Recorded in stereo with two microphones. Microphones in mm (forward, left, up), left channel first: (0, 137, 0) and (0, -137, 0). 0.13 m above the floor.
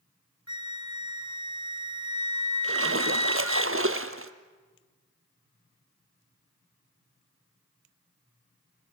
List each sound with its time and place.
0.5 s a flute: 70° right (ahead or behind), 0.9 m
2.6 s a splash: 50° right (ahead or behind), 1.1 m